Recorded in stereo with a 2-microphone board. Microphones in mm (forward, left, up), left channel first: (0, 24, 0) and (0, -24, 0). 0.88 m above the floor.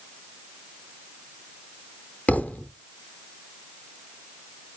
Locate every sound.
2.3 s a thud: 30° left (ahead or behind), 0.6 m